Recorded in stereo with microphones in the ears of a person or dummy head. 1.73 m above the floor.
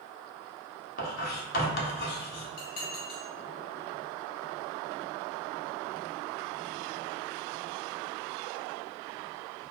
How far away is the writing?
About 0.9 m.